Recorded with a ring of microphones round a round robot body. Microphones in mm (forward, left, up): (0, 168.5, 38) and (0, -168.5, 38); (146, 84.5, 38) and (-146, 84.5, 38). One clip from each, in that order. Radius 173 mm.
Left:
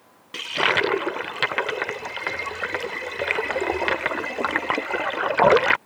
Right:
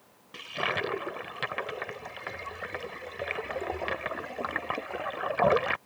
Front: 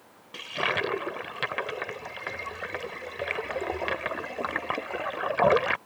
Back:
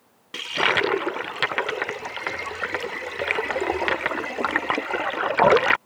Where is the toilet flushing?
140° left.